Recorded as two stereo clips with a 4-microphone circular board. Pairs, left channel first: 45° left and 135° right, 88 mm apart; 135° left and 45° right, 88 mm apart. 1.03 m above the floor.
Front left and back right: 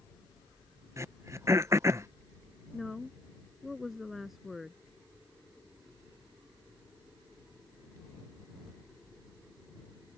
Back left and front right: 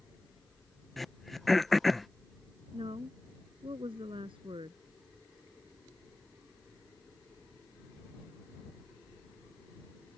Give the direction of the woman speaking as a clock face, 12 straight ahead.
2 o'clock.